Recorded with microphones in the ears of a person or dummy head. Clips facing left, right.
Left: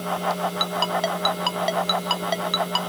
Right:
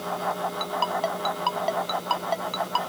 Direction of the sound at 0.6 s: 20° left (ahead or behind).